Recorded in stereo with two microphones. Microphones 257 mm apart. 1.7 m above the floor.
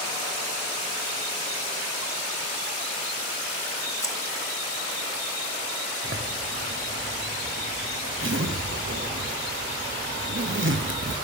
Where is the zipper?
50° right (ahead or behind), 1.7 m.